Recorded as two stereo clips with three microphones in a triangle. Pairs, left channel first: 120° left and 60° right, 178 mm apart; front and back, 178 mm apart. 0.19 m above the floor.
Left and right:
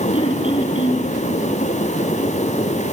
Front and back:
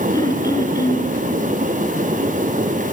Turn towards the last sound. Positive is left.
turn(degrees=65)